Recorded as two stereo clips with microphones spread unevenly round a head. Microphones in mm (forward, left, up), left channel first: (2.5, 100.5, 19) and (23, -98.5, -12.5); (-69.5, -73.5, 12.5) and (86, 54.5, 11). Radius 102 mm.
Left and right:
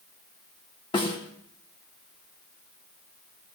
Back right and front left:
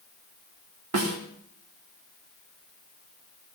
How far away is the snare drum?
About 3 m.